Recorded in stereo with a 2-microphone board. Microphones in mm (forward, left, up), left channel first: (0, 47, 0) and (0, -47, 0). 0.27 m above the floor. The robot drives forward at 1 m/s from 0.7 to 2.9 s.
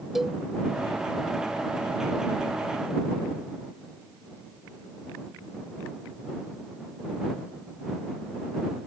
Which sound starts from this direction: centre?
A cowbell, at 0.1 s.